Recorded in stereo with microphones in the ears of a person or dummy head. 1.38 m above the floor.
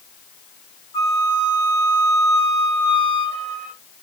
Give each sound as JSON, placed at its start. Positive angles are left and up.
{"t": 0.9, "sound": "a flute", "side_deg": 20, "distance_m": 2.0}